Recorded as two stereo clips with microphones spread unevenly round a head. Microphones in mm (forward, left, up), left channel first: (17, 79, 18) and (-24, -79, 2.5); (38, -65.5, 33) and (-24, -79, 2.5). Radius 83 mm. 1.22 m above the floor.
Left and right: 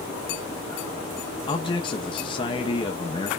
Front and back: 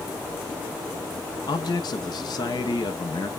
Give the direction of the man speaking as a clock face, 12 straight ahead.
12 o'clock.